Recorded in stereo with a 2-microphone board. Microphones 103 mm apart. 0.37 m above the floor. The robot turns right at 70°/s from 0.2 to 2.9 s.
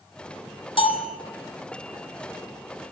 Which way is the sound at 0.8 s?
55° left (ahead or behind).